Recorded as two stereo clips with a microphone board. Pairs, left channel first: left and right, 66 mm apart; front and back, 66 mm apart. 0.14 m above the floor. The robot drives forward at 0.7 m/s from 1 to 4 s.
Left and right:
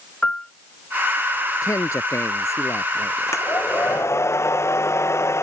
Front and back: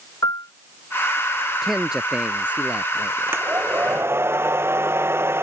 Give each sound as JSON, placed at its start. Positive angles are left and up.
{"t": 0.2, "sound": "a piano", "azimuth_deg": 20}
{"t": 1.6, "sound": "a man speaking", "azimuth_deg": 100}
{"t": 3.3, "sound": "a hair dryer", "azimuth_deg": 130}